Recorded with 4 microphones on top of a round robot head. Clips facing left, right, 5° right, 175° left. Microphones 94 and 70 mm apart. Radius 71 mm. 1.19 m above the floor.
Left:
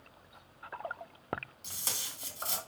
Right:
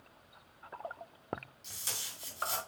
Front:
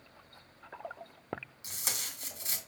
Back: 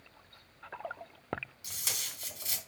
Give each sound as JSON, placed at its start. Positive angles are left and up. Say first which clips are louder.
{"t": 1.6, "sound": "tape being pulled", "louder": "left 3 dB, front 1 dB", "azimuth_deg": 45, "distance_m": 2.5}